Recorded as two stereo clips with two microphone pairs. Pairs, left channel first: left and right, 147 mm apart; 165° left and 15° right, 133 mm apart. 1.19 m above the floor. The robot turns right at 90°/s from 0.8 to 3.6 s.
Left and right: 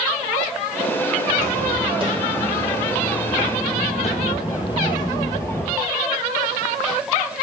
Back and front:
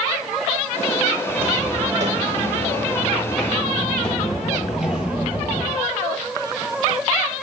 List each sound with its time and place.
1.3 s footsteps: 100° right, 3 m; by 5.8 s 20° left, 1.3 m